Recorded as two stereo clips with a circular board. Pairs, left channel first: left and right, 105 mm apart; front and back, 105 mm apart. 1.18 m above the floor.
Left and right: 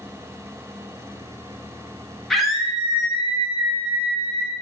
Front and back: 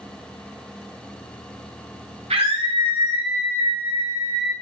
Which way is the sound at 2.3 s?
175° left.